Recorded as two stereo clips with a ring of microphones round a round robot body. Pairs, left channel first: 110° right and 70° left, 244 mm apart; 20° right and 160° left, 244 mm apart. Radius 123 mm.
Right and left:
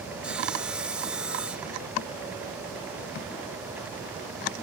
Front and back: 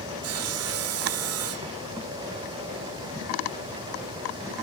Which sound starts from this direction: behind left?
Sawing, at 0.2 s.